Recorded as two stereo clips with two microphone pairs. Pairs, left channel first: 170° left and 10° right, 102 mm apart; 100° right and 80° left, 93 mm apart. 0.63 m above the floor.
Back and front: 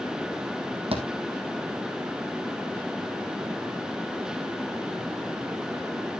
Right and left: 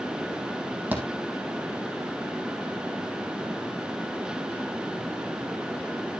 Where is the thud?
10° left, 2.5 m.